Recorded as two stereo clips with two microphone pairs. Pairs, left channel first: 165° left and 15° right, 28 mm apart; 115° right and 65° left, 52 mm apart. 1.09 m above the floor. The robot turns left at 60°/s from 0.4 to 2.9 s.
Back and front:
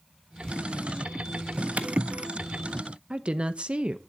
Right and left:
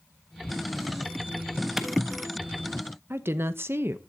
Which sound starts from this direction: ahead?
A clap, at 1.8 s.